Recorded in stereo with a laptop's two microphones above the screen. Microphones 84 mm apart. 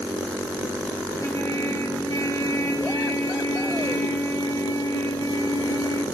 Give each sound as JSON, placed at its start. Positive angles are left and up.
{"t": 1.2, "sound": "a trumpet", "side_deg": 40, "distance_m": 2.5}